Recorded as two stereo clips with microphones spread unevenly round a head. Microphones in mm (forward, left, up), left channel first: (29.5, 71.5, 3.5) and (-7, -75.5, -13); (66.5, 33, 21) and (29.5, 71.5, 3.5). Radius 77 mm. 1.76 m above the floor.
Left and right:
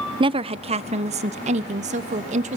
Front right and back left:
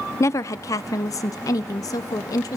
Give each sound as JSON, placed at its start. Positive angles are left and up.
{"t": 0.2, "sound": "a woman speaking", "azimuth_deg": -45, "distance_m": 0.8}